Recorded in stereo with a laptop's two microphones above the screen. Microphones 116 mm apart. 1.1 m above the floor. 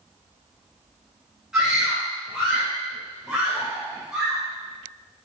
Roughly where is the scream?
Centre.